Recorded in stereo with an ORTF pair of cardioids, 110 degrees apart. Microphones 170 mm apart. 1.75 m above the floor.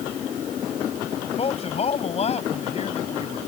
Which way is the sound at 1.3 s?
35° left.